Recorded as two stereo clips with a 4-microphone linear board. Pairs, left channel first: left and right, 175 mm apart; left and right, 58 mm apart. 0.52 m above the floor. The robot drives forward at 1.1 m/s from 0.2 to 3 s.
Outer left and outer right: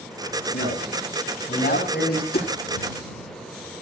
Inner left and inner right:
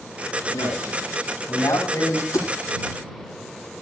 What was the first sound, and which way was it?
A man speaking, 70° left (ahead or behind).